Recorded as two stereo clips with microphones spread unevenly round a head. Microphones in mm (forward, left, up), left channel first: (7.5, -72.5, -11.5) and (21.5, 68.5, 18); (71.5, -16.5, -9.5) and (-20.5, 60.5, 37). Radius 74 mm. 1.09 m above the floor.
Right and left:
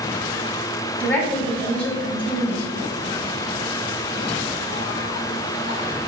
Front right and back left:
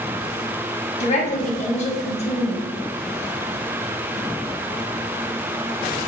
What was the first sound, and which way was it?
A woman speaking, 15° right.